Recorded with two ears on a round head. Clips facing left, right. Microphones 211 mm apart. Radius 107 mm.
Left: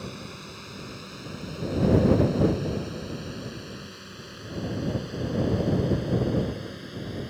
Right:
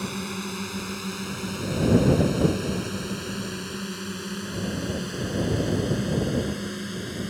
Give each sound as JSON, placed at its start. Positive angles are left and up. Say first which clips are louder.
{"t": 0.0, "sound": "a drone", "louder": "right 7 dB", "side_deg": -70}